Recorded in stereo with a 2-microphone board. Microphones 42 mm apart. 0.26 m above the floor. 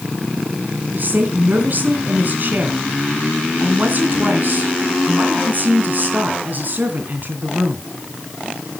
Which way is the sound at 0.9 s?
50° right (ahead or behind).